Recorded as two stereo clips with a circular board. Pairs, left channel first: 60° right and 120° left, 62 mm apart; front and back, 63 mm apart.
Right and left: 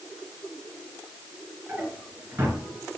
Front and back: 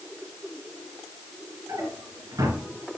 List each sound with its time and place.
1.7 s a drawer: 175° left, 2.5 m